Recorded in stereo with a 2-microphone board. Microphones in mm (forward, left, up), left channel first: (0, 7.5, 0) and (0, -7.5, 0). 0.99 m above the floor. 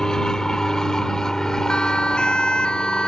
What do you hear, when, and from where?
0.0 s an aircraft: 40° left (ahead or behind)
1.7 s a siren: 75° left (ahead or behind)